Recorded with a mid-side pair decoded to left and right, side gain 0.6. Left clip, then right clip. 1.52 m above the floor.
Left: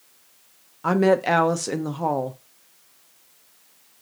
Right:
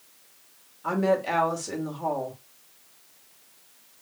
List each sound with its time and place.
0.8 s a woman speaking: 65° left, 0.8 m